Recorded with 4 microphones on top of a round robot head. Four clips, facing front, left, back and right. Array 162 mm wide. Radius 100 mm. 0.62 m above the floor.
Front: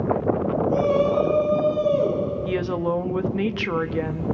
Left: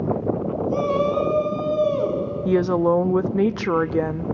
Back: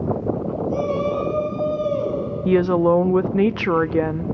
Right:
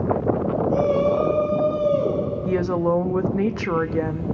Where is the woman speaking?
160° left, 0.6 m.